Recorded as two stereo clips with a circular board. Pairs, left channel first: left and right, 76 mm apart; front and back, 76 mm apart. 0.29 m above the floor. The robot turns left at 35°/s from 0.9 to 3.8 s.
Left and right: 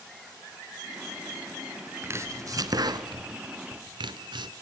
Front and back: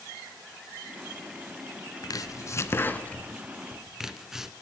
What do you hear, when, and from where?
2.0 s chopping: 35° right, 0.9 m; by 4.5 s 95° right, 0.9 m